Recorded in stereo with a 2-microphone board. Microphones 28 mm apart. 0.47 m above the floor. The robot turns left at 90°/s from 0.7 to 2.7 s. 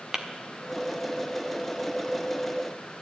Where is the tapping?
20° right (ahead or behind), 1.1 m.